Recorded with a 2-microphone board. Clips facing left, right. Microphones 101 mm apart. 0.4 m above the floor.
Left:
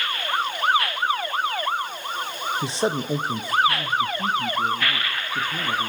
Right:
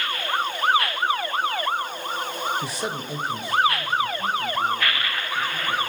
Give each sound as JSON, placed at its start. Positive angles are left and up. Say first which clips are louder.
{"t": 2.6, "sound": "a man speaking", "louder": "left 5 dB", "side_deg": 20, "distance_m": 1.1}